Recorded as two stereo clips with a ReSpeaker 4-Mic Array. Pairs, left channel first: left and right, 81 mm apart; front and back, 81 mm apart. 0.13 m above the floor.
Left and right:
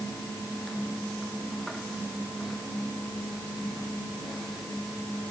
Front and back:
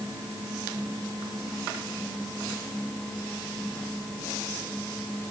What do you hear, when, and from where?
Only background noise.